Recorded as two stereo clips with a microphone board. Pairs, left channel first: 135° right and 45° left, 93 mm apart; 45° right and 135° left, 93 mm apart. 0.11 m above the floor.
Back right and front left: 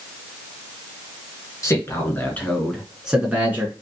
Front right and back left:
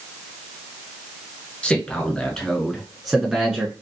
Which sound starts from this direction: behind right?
A man speaking, at 1.6 s.